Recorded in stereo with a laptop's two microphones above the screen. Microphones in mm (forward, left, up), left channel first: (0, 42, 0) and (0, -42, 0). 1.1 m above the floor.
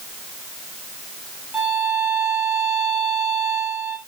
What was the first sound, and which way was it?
A violin, 20° right (ahead or behind).